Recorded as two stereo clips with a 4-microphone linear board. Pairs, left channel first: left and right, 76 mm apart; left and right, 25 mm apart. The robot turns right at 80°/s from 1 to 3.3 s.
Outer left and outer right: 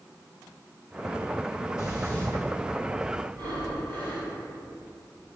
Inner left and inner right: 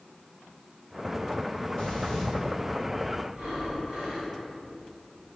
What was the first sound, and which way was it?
Breathing, 125° left.